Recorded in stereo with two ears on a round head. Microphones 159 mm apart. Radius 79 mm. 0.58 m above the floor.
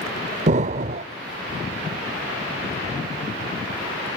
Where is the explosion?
40° right (ahead or behind), 0.6 m.